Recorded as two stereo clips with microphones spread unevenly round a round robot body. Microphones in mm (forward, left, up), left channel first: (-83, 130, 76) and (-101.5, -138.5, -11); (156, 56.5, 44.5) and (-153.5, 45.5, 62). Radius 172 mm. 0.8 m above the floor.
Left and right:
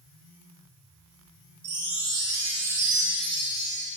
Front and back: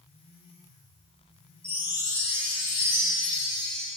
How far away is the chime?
About 2.5 m.